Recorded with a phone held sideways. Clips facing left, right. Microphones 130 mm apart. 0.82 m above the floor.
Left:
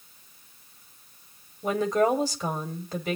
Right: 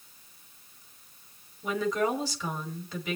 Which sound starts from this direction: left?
A woman speaking, at 1.6 s.